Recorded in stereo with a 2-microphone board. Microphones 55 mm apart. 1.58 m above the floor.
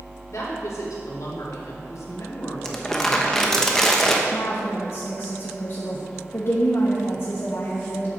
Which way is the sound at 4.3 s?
70° left (ahead or behind).